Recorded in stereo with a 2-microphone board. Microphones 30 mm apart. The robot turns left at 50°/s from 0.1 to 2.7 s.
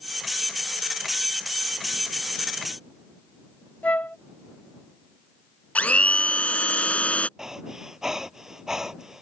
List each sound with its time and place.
3.8 s a flute: 65° left (ahead or behind)
5.8 s a blender: 65° left (ahead or behind)
7.4 s breathing: 20° right (ahead or behind)